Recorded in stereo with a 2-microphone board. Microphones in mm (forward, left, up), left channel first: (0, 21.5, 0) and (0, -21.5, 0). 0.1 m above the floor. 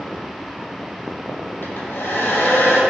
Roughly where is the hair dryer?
Left.